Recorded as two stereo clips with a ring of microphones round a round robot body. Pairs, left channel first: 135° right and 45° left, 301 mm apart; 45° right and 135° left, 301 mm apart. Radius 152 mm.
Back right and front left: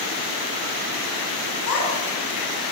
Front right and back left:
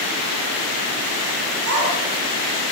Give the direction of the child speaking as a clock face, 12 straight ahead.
6 o'clock.